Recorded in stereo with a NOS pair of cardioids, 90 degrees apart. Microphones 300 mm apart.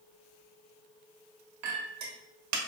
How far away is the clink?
About 1.2 m.